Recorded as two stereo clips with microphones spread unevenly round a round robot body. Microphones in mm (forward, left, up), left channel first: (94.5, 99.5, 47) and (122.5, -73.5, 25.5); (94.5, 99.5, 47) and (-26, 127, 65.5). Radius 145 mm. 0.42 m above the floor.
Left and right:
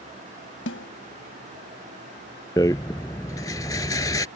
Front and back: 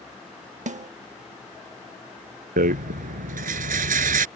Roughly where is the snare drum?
Behind left.